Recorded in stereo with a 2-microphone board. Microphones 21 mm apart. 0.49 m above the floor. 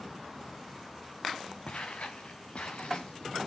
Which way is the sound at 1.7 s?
70° left (ahead or behind).